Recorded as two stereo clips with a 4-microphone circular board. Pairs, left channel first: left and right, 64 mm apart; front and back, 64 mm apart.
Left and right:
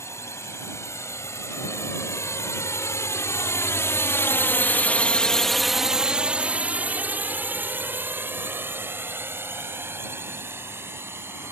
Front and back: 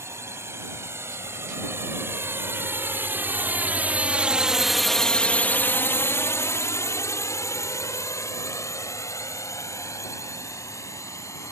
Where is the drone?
135° left; by 11.5 s 35° right.